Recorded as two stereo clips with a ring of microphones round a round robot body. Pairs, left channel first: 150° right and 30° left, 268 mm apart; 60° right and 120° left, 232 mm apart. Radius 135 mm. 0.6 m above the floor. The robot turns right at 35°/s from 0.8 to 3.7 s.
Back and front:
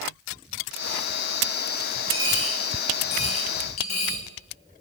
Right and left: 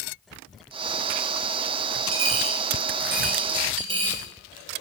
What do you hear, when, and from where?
2.1 s a dropped coin: 130° left, 2 m; by 4.2 s 175° right, 2 m